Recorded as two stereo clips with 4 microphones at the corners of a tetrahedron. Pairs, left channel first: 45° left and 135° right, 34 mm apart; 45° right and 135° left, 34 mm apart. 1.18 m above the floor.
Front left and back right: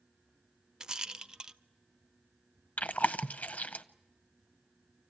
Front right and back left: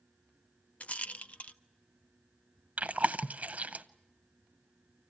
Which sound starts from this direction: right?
A rattle, at 0.8 s.